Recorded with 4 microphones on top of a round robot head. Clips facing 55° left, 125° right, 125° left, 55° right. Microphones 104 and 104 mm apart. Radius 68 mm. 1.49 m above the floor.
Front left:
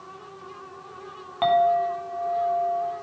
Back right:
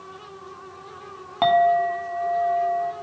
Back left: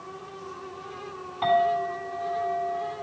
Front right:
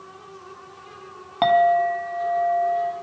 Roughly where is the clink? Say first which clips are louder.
Back right 2 dB, front right 6 dB; ahead right.